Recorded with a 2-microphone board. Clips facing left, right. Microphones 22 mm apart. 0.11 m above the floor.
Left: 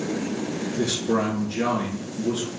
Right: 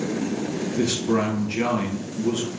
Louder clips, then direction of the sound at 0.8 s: Right 1 dB; 55° right (ahead or behind).